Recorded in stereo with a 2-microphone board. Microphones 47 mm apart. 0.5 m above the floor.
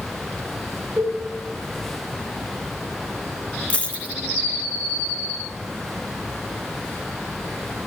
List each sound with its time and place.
1.0 s a cowbell: 45° right (ahead or behind), 3.5 m
3.7 s a dropped coin: 30° left (ahead or behind), 1.1 m